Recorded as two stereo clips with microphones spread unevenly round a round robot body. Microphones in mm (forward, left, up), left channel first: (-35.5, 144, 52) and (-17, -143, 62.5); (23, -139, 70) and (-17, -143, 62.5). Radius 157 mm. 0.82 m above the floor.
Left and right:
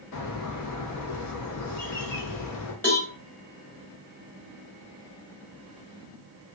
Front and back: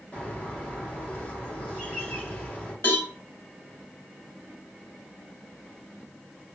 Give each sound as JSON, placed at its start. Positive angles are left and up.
{"t": 0.1, "sound": "a bird", "azimuth_deg": 90, "distance_m": 0.8}
{"t": 2.8, "sound": "a cowbell", "azimuth_deg": 10, "distance_m": 0.9}